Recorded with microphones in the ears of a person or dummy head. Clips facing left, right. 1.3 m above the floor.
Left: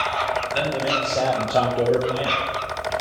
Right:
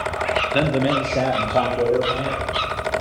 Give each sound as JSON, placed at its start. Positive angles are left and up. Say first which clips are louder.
{"t": 0.5, "sound": "a man speaking", "louder": "right 6 dB", "side_deg": -65, "distance_m": 0.8}